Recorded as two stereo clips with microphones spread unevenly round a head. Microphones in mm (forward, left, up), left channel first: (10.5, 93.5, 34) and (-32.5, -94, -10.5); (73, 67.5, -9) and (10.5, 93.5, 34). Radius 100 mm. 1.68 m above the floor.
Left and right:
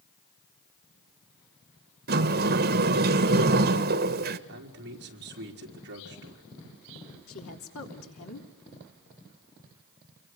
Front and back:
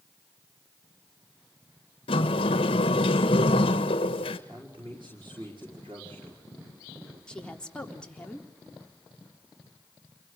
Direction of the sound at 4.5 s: 140° right.